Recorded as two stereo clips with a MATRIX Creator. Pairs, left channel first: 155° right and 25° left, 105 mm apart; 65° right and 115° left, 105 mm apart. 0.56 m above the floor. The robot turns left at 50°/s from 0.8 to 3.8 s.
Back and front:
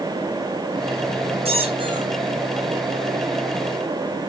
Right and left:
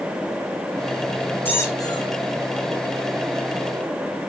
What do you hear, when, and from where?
1.4 s a squeak: 5° left, 6.5 m; by 2.1 s 30° right, 6.5 m